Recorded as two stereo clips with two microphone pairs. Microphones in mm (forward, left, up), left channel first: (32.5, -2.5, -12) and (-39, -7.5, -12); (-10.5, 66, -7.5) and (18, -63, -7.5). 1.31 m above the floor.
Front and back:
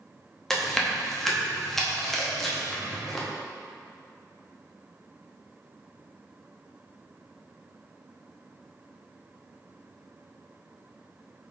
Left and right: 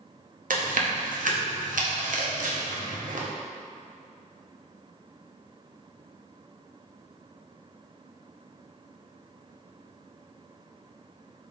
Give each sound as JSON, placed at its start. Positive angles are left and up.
{"t": 0.5, "sound": "chewing", "azimuth_deg": -85, "distance_m": 0.6}